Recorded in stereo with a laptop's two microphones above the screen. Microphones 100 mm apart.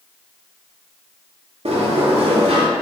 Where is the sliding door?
75° right (ahead or behind), 0.7 m.